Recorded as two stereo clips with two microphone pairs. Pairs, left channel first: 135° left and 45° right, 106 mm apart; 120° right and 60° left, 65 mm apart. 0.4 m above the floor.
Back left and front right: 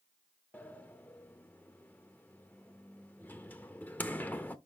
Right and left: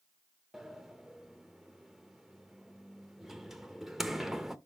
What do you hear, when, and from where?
0.5 s a sliding door: 150° left, 0.6 m